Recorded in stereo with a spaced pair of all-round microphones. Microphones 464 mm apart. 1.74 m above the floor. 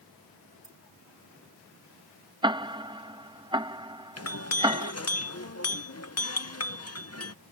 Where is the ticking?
10° right (ahead or behind).